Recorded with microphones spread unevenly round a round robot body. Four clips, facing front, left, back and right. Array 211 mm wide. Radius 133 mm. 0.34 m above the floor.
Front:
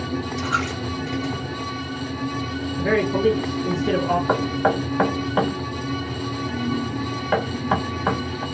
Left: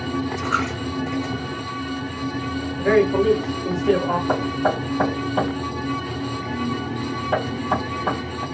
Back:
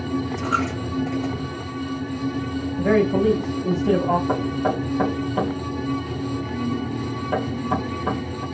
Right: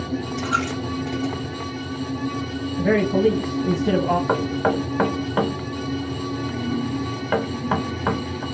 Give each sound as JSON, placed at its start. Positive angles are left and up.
{"t": 0.4, "sound": "a dropped coin", "azimuth_deg": 170, "distance_m": 0.8}
{"t": 2.8, "sound": "a man speaking", "azimuth_deg": -155, "distance_m": 1.2}
{"t": 4.3, "sound": "knocking", "azimuth_deg": -20, "distance_m": 1.1}